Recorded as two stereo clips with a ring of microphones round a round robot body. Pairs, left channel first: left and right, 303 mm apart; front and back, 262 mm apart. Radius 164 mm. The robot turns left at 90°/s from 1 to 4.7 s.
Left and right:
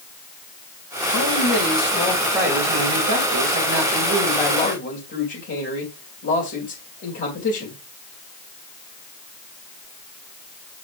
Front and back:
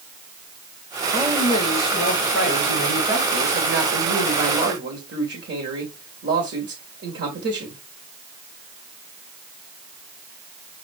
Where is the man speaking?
100° left, 2.5 m; by 7.8 s 140° left, 2.5 m.